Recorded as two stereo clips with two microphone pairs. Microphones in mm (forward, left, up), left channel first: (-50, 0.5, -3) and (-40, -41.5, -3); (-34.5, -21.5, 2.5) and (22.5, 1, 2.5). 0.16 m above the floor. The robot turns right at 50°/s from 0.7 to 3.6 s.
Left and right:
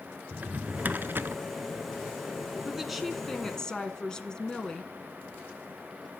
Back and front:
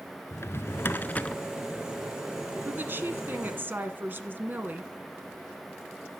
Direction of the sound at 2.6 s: 5° right.